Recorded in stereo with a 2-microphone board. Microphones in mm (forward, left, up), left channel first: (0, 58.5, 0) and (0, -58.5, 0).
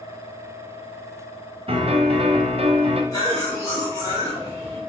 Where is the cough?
30° left (ahead or behind), 1.8 m.